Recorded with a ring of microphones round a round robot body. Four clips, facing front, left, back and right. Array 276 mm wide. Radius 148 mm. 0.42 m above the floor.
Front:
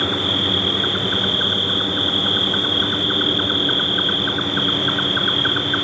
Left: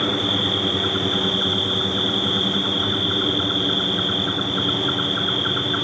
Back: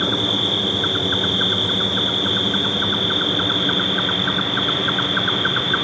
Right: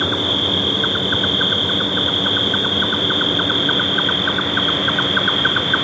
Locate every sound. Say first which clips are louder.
0.0 s an insect: right 2 dB, even; 95° right, 1.0 m